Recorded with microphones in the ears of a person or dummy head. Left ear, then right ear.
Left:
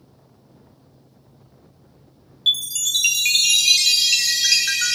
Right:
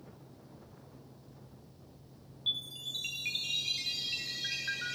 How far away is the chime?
About 1.0 m.